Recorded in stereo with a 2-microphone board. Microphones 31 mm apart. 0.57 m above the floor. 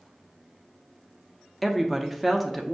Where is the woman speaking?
Centre (ahead or behind), 0.6 m.